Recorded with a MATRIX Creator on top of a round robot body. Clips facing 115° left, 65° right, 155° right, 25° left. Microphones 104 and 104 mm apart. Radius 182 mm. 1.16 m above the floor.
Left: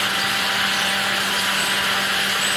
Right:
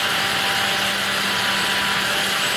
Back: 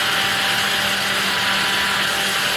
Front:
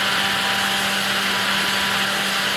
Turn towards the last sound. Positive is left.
No sound to turn to.